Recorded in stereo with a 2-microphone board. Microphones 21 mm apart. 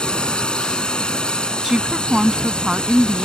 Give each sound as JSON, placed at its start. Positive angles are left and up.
{"t": 0.0, "sound": "a drone", "side_deg": 45}
{"t": 1.6, "sound": "a woman speaking", "side_deg": -30}